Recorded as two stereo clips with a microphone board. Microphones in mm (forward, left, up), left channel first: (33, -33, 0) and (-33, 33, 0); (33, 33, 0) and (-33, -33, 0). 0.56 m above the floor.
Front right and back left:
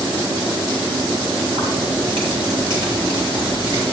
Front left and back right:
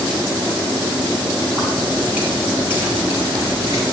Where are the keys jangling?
150° left, 4 m; by 3.8 s 165° left, 6 m.